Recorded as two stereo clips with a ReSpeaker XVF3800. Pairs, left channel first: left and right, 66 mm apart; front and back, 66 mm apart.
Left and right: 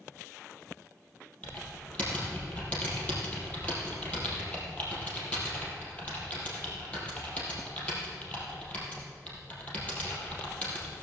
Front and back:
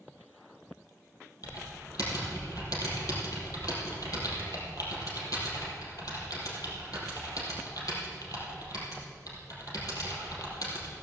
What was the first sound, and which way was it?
Typing on a keyboard, 20° left.